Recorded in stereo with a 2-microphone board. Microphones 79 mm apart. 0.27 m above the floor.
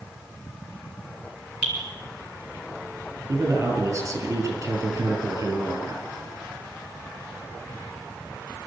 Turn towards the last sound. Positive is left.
turn(degrees=-40)  # may be behind; listen again after turning